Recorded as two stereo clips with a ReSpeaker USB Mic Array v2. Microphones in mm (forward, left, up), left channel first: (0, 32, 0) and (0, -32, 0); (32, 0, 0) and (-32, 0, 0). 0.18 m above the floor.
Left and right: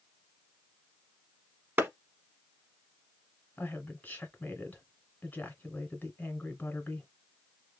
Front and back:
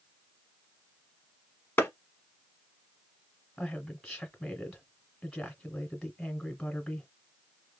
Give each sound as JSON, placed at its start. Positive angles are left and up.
{"t": 1.8, "sound": "a clap", "azimuth_deg": -45, "distance_m": 1.0}
{"t": 3.6, "sound": "a woman speaking", "azimuth_deg": 80, "distance_m": 1.2}